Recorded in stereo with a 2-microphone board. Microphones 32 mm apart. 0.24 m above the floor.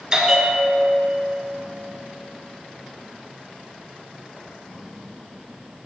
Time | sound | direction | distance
0.1 | a bell | 20° right (ahead or behind) | 0.5 m